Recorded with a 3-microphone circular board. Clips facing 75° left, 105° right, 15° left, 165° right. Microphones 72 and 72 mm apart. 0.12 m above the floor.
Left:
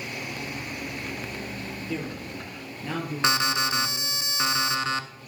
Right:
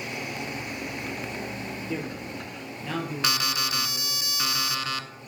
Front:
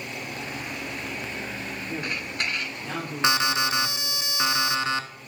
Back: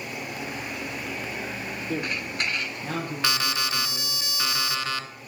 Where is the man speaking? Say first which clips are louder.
Left 1 dB, back 3 dB; straight behind, 3 m; by 4.2 s 130° left, 4 m.